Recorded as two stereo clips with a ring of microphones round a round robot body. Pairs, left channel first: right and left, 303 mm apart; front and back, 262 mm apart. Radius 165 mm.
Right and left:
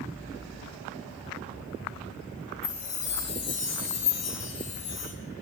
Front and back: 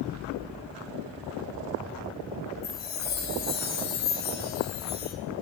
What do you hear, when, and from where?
2.6 s a chime: 55° right, 3 m